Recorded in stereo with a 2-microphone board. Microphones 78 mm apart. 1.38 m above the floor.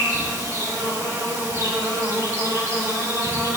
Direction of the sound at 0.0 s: 40° right (ahead or behind).